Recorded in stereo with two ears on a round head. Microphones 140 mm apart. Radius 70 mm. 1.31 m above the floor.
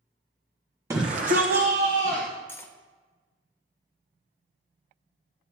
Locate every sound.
0.9 s a shout: 20° right (ahead or behind), 0.7 m; by 2.3 s 75° right (ahead or behind), 1.6 m
2.5 s cutlery clinking: 15° left (ahead or behind), 0.6 m